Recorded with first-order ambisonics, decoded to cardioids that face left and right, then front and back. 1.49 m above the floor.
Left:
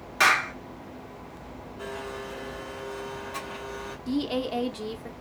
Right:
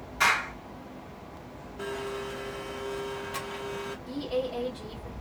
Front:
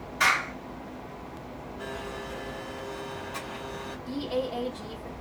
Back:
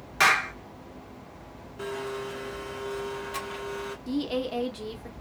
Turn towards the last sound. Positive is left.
turn(degrees=125)